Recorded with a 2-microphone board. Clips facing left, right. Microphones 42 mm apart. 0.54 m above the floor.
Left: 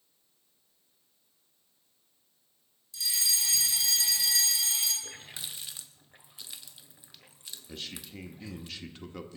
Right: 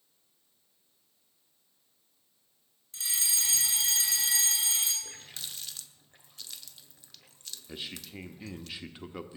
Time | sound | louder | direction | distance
2.9 | a fire alarm | left 2 dB | 45° right (ahead or behind) | 4.5 m
5.0 | a running tap | left 2 dB | 15° left (ahead or behind) | 0.9 m
7.7 | a man speaking | right 1 dB | 15° right (ahead or behind) | 1.0 m